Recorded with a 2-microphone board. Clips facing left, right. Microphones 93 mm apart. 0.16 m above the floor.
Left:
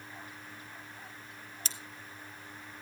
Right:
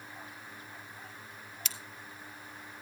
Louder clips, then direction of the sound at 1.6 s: Right 1 dB; 35° left (ahead or behind).